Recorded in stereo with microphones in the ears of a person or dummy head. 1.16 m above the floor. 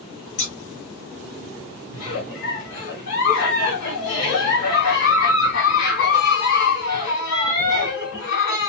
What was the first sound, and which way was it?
Scissors, 35° left (ahead or behind).